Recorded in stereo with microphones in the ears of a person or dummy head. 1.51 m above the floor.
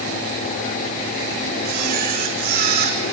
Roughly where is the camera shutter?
Right.